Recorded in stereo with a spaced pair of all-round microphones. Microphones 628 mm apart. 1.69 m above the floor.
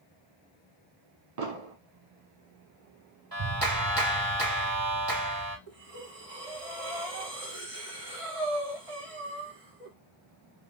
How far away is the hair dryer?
I don't hear a hair dryer.